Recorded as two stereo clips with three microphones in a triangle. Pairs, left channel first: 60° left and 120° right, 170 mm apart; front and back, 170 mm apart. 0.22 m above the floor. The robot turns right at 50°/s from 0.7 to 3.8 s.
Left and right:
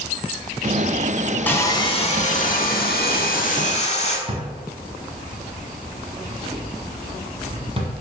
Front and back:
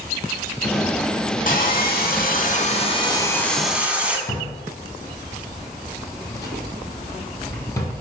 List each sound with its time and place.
1.5 s sawing: 20° right, 0.6 m; by 4.2 s 100° left, 0.6 m
4.3 s a drawer: 70° right, 0.9 m